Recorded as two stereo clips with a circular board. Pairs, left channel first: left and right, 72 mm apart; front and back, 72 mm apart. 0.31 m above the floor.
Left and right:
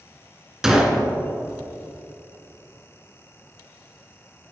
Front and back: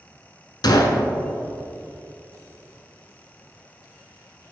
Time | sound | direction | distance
0.6 | a gunshot | 5° right | 0.6 m